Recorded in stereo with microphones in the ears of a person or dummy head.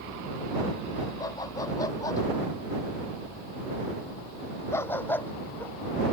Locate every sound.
1.2 s a dog barking: 25° left (ahead or behind); by 5.7 s 15° left (ahead or behind)